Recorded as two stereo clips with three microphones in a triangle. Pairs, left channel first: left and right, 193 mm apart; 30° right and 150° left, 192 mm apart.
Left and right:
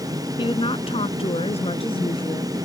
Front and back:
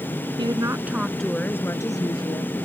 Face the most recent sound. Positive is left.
turn(degrees=30)